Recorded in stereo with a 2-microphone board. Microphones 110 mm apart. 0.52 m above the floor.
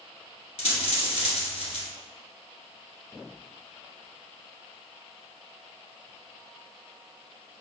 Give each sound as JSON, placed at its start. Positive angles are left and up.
{"t": 0.6, "sound": "a dropped coin", "side_deg": 70, "distance_m": 1.4}